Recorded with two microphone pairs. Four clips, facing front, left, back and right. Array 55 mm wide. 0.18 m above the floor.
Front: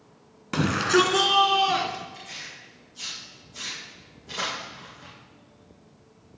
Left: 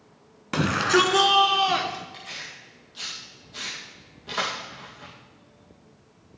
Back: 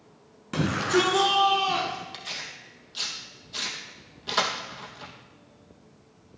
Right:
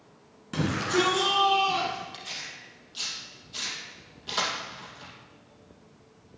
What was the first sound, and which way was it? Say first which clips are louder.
A shout: left 5 dB, front 3 dB; 60° left.